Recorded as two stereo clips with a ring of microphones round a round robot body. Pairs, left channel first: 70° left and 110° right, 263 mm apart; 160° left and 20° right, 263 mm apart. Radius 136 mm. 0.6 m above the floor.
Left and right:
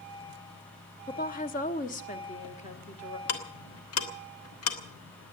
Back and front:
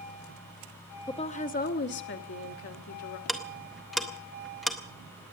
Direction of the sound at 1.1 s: 95° left.